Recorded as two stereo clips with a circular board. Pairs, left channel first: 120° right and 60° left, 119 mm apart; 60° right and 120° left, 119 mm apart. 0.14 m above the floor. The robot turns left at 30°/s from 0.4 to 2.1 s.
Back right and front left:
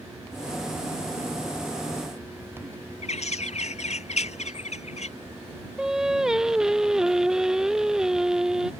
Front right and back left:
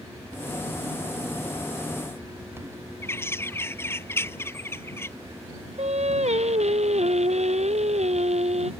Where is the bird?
130° right.